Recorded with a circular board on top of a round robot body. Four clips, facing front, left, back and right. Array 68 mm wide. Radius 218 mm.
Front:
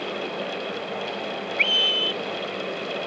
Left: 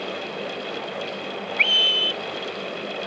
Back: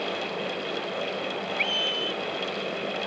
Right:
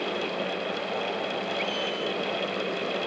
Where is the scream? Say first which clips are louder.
Left 5 dB, front 7 dB; 65° left.